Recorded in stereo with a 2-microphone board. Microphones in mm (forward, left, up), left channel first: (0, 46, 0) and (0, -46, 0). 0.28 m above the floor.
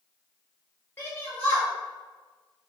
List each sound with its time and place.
1.0 s a shout: 20° left (ahead or behind), 0.9 m